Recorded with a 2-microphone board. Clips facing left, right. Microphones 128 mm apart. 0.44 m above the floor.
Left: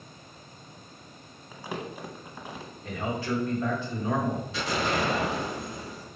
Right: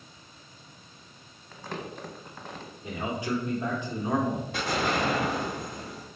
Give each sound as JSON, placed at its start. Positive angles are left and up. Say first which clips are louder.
{"t": 1.5, "sound": "crumpling", "louder": "left 1 dB", "side_deg": 10, "distance_m": 0.7}
{"t": 2.8, "sound": "a man speaking", "louder": "left 1 dB", "side_deg": -15, "distance_m": 1.1}
{"t": 4.5, "sound": "an explosion", "louder": "right 1 dB", "side_deg": -50, "distance_m": 1.3}